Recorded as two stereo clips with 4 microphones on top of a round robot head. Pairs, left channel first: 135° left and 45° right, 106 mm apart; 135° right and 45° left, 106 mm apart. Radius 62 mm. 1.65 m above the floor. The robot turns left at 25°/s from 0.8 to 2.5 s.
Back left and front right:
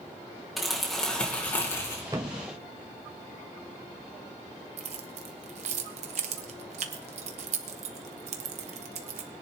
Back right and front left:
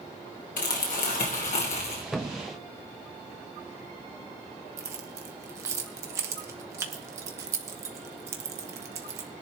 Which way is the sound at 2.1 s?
35° right.